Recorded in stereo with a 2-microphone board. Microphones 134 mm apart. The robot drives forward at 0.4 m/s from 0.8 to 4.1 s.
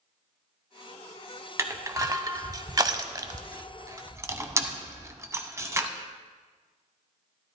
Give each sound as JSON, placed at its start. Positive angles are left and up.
{"t": 1.6, "sound": "crushing", "side_deg": -25, "distance_m": 0.7}